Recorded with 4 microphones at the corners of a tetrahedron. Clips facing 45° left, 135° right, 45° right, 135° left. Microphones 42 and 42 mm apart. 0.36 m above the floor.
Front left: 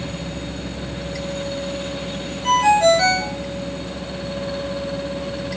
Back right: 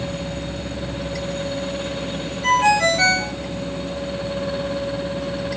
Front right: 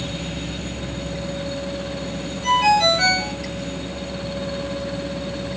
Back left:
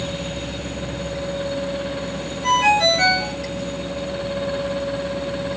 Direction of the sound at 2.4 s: 145° right.